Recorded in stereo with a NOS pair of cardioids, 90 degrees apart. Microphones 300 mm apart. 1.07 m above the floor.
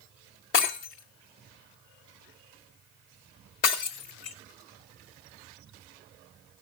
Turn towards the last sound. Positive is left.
turn(degrees=45)